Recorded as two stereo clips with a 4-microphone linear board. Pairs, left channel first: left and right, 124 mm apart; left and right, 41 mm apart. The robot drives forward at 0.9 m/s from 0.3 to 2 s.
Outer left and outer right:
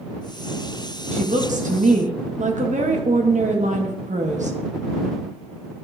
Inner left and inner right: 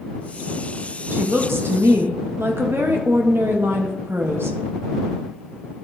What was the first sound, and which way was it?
A woman speaking, 65° right (ahead or behind).